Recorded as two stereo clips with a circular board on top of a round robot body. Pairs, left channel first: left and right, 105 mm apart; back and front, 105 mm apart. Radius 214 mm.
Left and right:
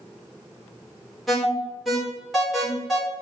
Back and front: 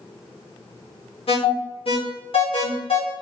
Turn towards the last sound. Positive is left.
turn(degrees=180)